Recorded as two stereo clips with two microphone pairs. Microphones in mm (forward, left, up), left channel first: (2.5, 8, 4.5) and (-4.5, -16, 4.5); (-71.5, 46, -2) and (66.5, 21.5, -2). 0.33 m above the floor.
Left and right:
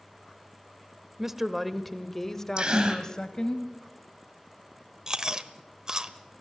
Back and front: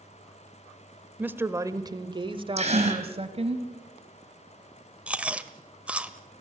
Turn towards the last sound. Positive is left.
turn(degrees=-85)